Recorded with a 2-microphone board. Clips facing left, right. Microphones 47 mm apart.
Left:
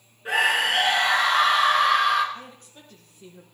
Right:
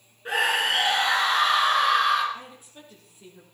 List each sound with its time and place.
0.2 s a scream: centre (ahead or behind), 2.5 m
2.3 s a woman speaking: 10° right (ahead or behind), 4.5 m